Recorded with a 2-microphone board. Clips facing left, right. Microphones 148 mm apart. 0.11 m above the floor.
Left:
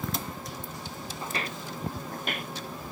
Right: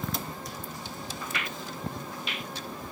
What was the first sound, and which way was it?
Footsteps, 30° left (ahead or behind).